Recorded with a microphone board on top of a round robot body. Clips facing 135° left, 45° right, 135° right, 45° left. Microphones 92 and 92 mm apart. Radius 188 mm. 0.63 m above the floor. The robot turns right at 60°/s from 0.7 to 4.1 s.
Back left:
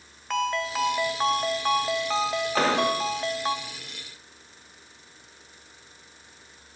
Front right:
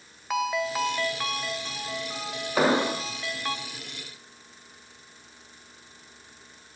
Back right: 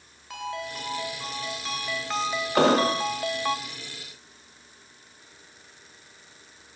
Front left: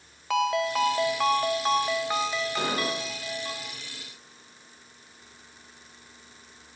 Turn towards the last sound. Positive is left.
turn(degrees=-30)